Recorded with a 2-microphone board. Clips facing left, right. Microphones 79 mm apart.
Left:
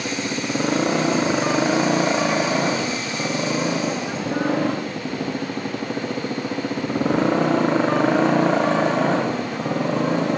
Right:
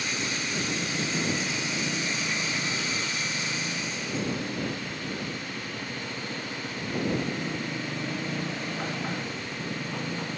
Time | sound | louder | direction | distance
0.0 | a motorcycle | left 7 dB | 85° left | ?